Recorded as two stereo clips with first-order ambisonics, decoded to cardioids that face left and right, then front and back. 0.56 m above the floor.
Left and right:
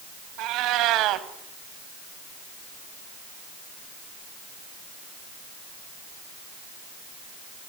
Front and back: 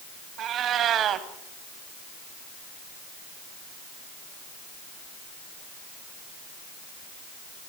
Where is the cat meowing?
125° right, 1.6 m.